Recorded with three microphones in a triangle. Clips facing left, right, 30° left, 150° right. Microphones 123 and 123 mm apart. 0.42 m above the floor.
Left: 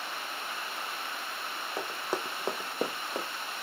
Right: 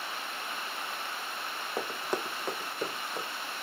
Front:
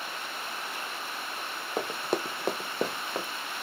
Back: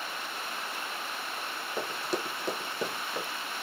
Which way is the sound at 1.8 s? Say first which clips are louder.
Right 1 dB, front 3 dB; 15° right.